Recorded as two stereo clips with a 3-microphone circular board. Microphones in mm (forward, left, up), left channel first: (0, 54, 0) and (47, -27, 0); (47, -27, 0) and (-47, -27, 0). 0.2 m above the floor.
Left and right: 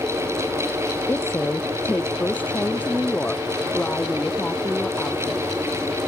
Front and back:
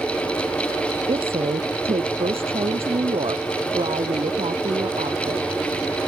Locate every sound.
1.1 s a woman speaking: 175° right; by 5.5 s 160° right